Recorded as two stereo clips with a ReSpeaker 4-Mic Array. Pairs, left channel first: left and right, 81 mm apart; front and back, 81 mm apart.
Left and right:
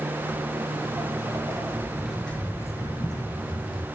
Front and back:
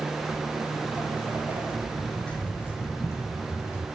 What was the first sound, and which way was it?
Footsteps, 120° right.